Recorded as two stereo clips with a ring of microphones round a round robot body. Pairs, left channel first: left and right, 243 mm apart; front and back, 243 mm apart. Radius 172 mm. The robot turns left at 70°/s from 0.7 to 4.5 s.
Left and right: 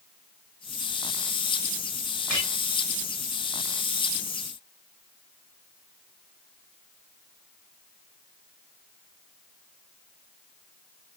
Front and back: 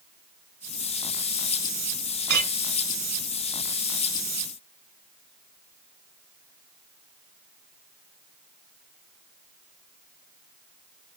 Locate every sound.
2.3 s a clink: straight behind, 2 m; by 2.5 s 165° left, 2 m